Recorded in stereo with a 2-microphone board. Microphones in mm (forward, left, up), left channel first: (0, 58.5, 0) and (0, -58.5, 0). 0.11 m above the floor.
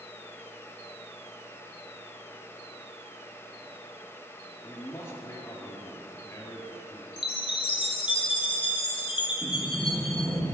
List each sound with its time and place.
4.6 s a man speaking: 20° left (ahead or behind), 1.4 m
7.2 s a chime: 45° left (ahead or behind), 0.9 m
9.4 s a sliding door: 25° right (ahead or behind), 2.5 m